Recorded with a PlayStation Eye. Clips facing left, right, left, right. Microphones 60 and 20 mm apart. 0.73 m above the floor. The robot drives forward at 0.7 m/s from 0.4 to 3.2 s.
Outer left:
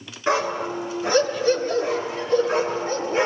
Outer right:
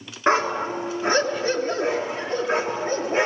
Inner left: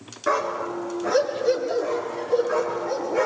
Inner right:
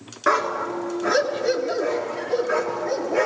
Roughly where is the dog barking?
Right.